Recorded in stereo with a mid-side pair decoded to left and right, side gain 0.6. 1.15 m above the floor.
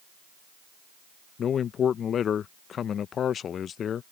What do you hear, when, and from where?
1.4 s a man speaking: 45° left